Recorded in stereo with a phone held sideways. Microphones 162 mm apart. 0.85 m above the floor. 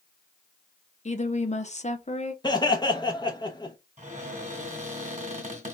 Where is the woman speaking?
45° left (ahead or behind), 0.7 m.